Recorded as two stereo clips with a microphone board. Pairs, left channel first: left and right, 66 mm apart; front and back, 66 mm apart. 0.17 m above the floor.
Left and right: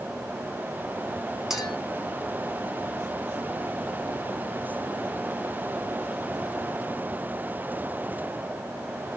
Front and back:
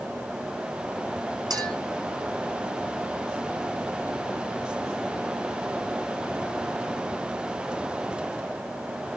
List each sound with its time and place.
1.5 s a clink: 175° right, 5 m